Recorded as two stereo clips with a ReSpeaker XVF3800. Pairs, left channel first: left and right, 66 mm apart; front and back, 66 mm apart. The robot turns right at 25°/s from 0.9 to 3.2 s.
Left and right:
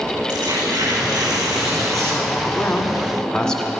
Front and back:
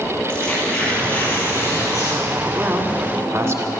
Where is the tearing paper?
75° right, 4.5 m; by 2.2 s 40° right, 4.5 m.